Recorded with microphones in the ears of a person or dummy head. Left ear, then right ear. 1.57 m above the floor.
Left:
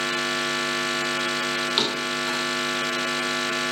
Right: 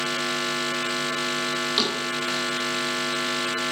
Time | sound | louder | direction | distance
1.8 | a thud | left 1 dB | 15° left (ahead or behind) | 2.5 m